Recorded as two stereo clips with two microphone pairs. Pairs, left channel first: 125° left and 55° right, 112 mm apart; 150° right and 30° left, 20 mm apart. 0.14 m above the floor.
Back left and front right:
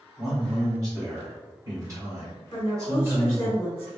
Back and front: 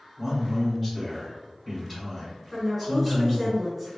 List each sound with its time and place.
0.2 s a man speaking: 60° right, 1.5 m
2.5 s a woman speaking: 130° left, 1.1 m